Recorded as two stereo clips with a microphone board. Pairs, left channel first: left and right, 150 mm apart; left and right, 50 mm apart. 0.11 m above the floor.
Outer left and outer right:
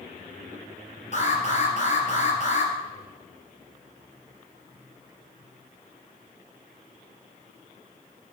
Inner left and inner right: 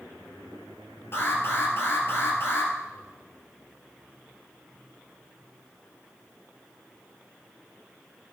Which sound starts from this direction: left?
An alarm, at 1.1 s.